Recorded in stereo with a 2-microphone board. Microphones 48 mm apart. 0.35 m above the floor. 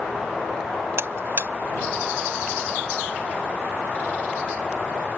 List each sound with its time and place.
1.0 s a buzzer: 60° right (ahead or behind)